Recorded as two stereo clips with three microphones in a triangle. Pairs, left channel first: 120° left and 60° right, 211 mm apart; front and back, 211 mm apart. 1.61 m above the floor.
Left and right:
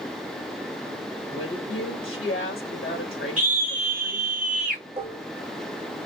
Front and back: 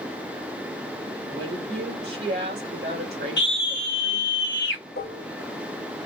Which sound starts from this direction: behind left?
A woman speaking, at 1.3 s.